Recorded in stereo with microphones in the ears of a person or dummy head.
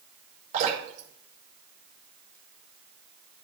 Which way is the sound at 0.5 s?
50° right (ahead or behind).